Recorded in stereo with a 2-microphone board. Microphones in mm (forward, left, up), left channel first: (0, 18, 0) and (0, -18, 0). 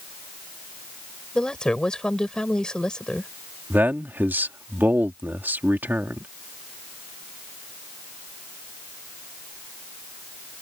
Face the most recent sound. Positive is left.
turn(degrees=-65)  # may be behind; listen again after turning